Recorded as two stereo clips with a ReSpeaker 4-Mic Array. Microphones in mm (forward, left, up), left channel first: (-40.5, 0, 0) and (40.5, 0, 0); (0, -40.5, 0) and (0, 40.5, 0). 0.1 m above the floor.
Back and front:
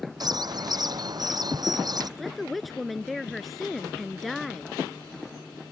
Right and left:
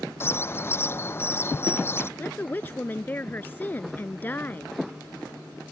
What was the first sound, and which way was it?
A bird, 30° right.